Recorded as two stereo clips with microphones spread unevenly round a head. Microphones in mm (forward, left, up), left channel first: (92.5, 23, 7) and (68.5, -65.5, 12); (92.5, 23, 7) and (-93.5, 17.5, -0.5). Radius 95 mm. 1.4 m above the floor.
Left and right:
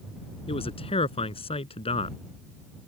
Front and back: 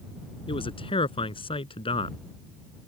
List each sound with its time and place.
0.5 s a man speaking: 65° left